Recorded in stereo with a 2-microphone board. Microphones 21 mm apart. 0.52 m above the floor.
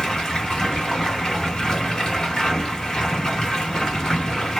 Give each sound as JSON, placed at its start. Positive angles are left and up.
{"t": 0.0, "sound": "running water", "side_deg": 35, "distance_m": 1.4}